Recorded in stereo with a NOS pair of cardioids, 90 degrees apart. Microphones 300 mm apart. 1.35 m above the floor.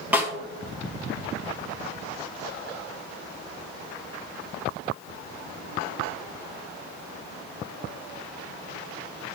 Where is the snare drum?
5° right, 4.5 m.